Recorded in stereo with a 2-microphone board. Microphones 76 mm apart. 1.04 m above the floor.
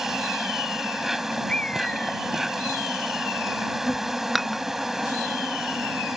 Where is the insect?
5° right (ahead or behind).